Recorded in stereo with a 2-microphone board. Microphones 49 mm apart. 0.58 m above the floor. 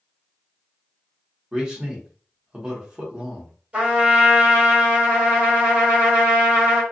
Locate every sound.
1.5 s a man speaking: 15° right (ahead or behind), 1.0 m
3.7 s a trumpet: 25° right (ahead or behind), 1.7 m